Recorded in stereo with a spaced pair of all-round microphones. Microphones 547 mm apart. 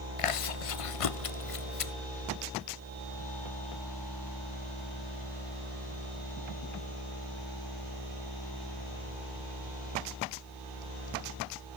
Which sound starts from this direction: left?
Chewing, at 0.2 s.